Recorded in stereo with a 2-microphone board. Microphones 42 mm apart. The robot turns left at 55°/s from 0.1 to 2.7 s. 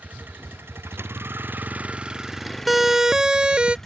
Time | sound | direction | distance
0.0 | a vehicle | 45° right | ?
2.7 | a siren | 5° right (ahead or behind) | ?